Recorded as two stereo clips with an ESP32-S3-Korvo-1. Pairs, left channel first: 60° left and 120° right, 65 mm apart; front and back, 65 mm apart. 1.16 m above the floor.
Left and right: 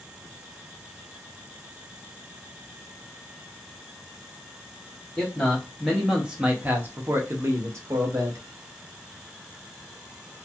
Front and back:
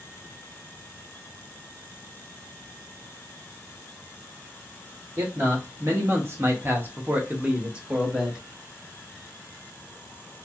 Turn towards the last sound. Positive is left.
turn(degrees=-95)